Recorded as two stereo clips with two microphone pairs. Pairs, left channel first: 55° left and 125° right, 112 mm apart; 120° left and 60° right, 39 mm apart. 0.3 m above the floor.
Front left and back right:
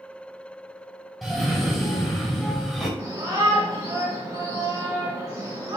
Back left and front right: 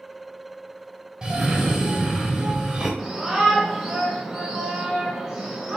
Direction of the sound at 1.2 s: 40° right.